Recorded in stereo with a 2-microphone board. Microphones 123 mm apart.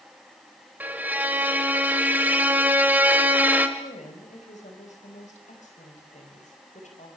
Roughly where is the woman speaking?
Left.